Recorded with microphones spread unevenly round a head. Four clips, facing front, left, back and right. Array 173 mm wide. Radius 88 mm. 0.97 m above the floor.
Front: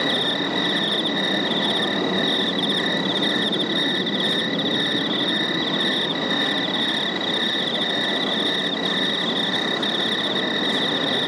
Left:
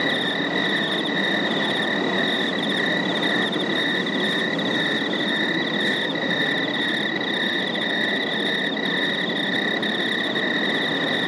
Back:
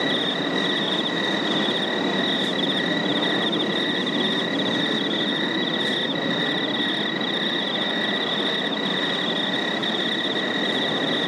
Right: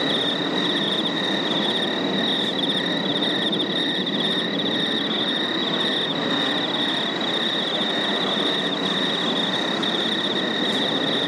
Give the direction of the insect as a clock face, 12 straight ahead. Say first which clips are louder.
Even, even; 11 o'clock.